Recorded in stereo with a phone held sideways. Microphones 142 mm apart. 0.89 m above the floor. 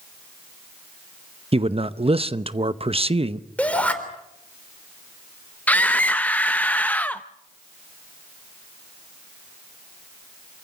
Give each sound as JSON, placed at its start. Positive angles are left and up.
{"t": 1.5, "sound": "a man speaking", "side_deg": -45, "distance_m": 0.8}
{"t": 3.6, "sound": "a shout", "side_deg": 10, "distance_m": 3.5}
{"t": 5.7, "sound": "a scream", "side_deg": 10, "distance_m": 0.6}